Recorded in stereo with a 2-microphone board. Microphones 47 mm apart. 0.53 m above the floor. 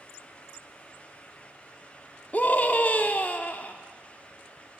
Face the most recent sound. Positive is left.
turn(degrees=35)  # may be behind; listen again after turning